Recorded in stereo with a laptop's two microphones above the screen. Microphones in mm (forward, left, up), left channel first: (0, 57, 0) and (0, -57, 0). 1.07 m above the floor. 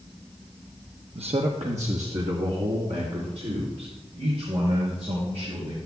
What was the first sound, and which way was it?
A man speaking, 60° right (ahead or behind).